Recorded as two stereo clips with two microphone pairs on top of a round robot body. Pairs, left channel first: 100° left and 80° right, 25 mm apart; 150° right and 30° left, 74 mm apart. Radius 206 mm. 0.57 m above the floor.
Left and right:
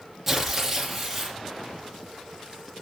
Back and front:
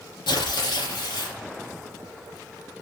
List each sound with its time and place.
0.3 s tearing paper: 165° right, 4 m